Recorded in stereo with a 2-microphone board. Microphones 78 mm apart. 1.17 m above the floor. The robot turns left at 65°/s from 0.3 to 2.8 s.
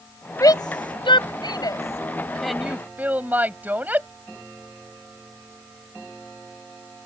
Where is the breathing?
I don't hear breathing.